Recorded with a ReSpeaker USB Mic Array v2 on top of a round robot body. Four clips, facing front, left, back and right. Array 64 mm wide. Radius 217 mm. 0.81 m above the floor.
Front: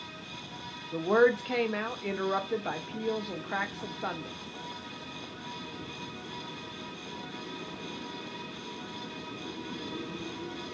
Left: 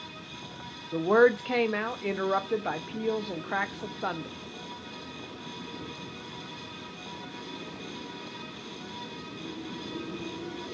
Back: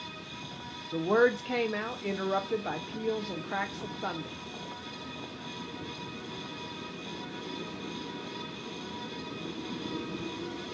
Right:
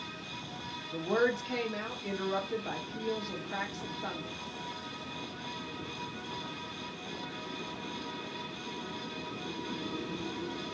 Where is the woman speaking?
80° left, 0.5 m.